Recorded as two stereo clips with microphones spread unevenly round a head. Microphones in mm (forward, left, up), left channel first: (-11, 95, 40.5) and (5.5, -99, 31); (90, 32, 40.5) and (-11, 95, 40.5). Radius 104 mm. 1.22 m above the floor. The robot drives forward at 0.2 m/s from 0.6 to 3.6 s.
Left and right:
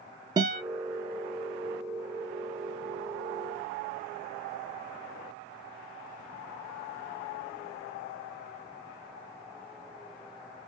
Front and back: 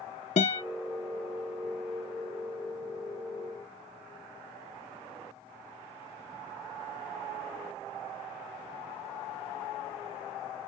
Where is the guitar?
15° right, 0.8 m.